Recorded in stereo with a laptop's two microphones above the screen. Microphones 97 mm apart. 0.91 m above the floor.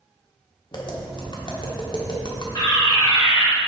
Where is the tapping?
50° left (ahead or behind), 1.4 m.